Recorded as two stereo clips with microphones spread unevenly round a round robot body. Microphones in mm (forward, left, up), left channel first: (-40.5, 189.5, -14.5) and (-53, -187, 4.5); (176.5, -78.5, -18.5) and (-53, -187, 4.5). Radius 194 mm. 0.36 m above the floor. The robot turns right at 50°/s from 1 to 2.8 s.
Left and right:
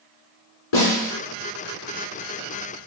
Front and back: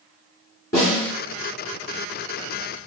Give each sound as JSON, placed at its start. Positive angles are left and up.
{"t": 0.7, "sound": "a snare drum", "azimuth_deg": 95, "distance_m": 2.5}